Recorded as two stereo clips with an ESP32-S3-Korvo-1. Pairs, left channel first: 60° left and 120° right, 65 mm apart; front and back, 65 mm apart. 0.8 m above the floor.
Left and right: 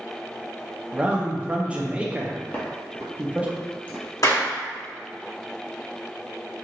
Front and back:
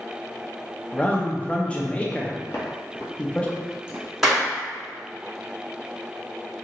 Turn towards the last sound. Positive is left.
turn(degrees=95)